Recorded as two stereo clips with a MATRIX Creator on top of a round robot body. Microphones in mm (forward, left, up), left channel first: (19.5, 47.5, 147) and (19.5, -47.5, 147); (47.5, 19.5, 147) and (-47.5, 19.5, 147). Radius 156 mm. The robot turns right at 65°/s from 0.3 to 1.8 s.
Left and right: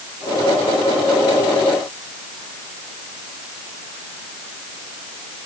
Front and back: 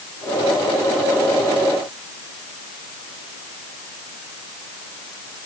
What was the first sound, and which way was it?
Only background noise.